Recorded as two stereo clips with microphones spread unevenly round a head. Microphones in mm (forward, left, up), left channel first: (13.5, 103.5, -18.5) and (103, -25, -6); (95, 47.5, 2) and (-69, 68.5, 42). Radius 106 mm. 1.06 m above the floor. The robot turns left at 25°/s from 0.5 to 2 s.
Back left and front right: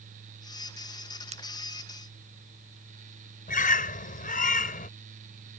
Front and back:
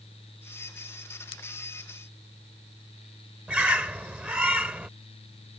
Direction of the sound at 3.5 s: 90° left.